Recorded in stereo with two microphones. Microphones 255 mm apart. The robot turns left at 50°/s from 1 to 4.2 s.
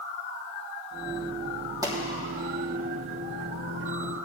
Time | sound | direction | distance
1.8 | a pop | 15° right (ahead or behind) | 3.5 m